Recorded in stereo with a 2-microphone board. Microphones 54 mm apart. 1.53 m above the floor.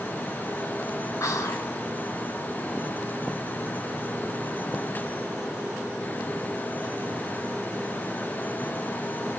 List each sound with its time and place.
1.2 s whispering: 70° left (ahead or behind), 0.7 m